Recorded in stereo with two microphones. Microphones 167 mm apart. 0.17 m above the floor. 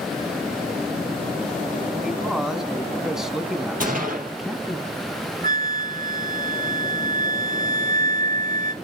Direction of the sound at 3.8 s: 55° right (ahead or behind).